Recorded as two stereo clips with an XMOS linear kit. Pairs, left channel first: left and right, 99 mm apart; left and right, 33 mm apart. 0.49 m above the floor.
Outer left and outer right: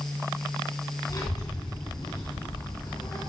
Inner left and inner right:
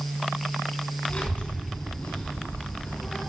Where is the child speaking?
45° left (ahead or behind), 3.5 m; by 3.2 s 70° left (ahead or behind), 4.5 m.